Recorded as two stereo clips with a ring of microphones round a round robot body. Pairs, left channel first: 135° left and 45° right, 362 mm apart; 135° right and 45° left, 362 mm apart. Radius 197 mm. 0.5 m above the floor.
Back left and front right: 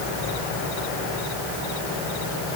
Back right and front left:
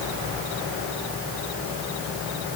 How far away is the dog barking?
I don't hear a dog barking.